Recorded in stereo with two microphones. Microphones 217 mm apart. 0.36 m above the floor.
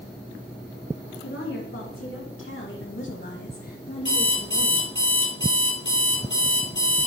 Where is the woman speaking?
75° left (ahead or behind), 3.5 m; by 5.0 s 10° right (ahead or behind), 1.6 m.